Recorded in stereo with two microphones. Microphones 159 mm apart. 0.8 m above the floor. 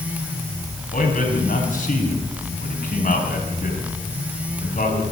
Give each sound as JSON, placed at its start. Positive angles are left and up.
{"t": 0.9, "sound": "a man speaking", "side_deg": 55, "distance_m": 5.0}